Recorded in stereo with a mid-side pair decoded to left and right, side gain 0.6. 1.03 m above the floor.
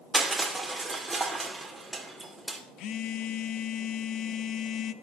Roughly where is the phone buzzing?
Ahead left.